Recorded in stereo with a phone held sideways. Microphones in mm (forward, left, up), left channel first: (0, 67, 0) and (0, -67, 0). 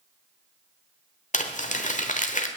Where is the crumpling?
70° left (ahead or behind), 1.2 m.